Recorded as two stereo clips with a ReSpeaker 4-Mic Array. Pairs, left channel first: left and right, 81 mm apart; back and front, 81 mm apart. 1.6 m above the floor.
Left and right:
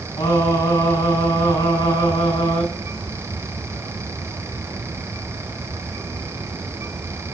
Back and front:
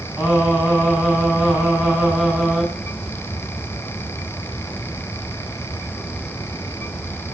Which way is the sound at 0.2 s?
80° left.